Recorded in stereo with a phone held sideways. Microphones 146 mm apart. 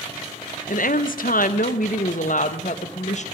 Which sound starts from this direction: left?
A woman speaking, at 0.7 s.